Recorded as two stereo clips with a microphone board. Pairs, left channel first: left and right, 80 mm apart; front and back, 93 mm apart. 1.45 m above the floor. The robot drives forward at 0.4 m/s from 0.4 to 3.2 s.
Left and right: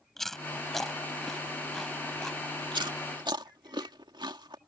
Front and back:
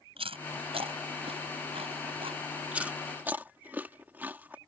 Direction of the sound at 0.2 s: 175° left.